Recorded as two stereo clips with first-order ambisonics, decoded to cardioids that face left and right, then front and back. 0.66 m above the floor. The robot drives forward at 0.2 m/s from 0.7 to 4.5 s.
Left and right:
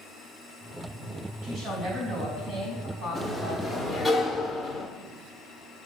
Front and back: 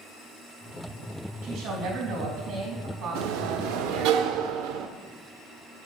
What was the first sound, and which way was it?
A woman speaking, 145° right.